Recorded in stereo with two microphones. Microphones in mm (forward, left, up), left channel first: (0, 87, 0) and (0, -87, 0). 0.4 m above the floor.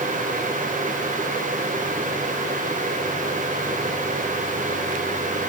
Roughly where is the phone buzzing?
No phone buzzing in this recording.